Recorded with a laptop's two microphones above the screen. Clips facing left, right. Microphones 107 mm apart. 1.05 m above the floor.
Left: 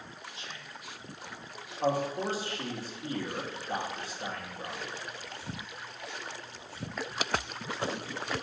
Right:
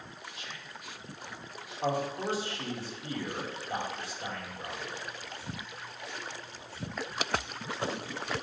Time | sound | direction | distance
0.3 | whispering | 30° left (ahead or behind) | 1.4 m
1.8 | a man speaking | 50° left (ahead or behind) | 1.9 m